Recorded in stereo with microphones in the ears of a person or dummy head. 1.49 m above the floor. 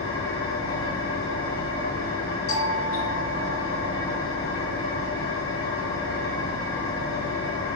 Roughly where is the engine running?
Left.